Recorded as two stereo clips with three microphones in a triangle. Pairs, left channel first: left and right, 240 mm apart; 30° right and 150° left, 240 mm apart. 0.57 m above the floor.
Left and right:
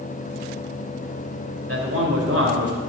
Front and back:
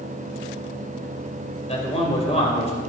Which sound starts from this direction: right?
A man speaking, at 1.7 s.